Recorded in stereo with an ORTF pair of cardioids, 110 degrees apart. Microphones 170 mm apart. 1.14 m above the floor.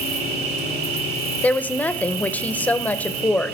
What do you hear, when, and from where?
0.0 s an insect: 70° right, 1.9 m
1.4 s a woman speaking: 10° left, 0.5 m